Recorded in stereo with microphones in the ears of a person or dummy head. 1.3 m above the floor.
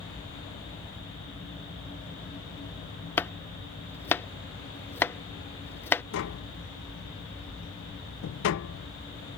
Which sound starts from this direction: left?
Tapping, at 6.1 s.